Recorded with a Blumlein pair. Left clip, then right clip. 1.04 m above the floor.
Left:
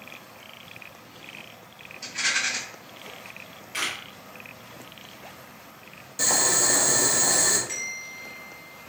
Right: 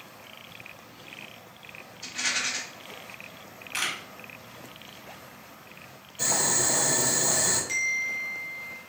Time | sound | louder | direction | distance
2.0 | a rattle | left 3 dB | 70° left | 1.8 m
3.7 | a camera shutter | even | 15° right | 0.9 m
6.2 | boiling | left 3 dB | 60° left | 0.8 m
7.7 | a bell | right 7 dB | straight ahead | 1.0 m